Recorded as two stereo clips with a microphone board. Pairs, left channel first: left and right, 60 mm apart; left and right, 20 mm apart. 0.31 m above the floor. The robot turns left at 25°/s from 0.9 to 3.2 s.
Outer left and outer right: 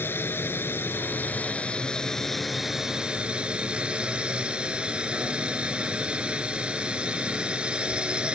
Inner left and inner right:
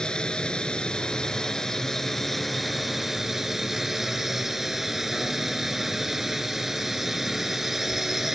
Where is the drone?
40° left; by 8.3 s 20° right.